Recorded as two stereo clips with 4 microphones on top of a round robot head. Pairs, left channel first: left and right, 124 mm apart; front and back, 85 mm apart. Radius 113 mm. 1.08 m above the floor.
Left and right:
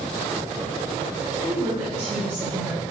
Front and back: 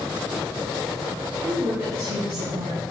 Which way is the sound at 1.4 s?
160° right.